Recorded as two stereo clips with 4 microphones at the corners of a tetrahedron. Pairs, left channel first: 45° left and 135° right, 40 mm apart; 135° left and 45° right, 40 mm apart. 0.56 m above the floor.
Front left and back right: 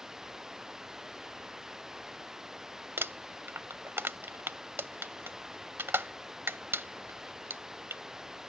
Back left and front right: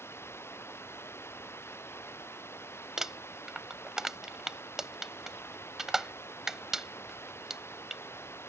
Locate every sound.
0.0 s running water: 145° left
3.0 s crumpling: 120° right